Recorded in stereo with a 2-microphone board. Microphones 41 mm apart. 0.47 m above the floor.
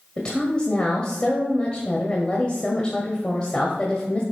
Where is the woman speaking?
30° left (ahead or behind), 1.7 m.